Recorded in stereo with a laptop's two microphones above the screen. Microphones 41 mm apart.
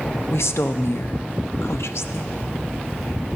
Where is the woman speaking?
75° left (ahead or behind), 0.7 m.